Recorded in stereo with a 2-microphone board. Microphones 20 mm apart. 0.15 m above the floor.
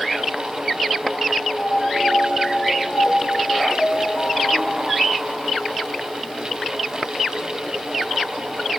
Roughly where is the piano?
Left.